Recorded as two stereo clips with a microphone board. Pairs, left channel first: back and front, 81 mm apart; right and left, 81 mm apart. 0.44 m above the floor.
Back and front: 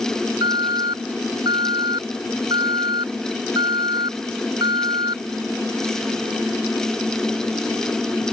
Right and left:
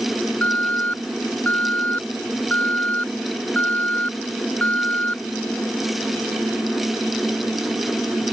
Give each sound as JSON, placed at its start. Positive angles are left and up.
{"t": 0.4, "sound": "an alarm", "azimuth_deg": -20}